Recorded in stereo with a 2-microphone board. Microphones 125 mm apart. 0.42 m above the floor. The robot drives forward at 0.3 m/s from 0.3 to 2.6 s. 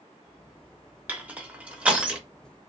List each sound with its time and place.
1.1 s crushing: 15° right (ahead or behind), 0.6 m; by 2.2 s 10° right (ahead or behind), 0.8 m